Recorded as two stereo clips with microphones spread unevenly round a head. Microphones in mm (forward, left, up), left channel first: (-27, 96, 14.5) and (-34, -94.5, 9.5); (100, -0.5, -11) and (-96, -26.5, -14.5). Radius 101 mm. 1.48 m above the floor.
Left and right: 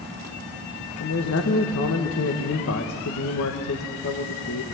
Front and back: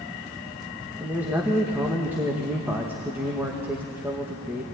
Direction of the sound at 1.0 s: 105° left.